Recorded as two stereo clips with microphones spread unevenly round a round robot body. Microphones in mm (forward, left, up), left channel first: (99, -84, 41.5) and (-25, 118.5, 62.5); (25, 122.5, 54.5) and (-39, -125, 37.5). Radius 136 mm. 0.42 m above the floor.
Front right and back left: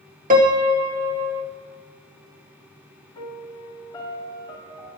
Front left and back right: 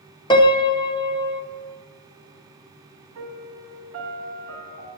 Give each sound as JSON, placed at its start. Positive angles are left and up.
{"t": 0.3, "sound": "a piano", "azimuth_deg": 140, "distance_m": 1.0}
{"t": 3.1, "sound": "a piano", "azimuth_deg": -135, "distance_m": 1.8}